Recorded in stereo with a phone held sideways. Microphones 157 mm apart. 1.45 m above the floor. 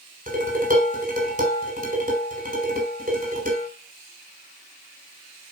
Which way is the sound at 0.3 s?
55° right (ahead or behind).